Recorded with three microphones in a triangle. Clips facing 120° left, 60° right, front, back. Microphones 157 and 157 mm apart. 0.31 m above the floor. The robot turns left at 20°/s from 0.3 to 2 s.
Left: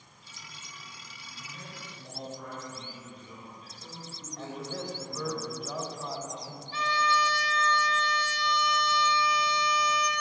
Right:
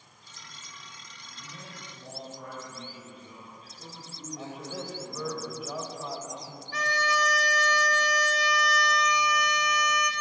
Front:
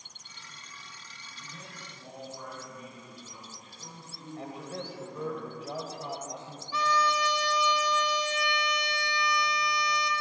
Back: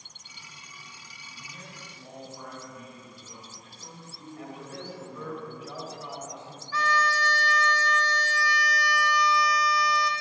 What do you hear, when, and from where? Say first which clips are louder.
1.4 s a man speaking: even, even; 80° right, 3 m; by 5.4 s 95° right, 3 m
4.4 s a man speaking: left 2 dB, front 2 dB; 20° left, 1.1 m
6.7 s a violin: left 1 dB, even; 70° right, 0.5 m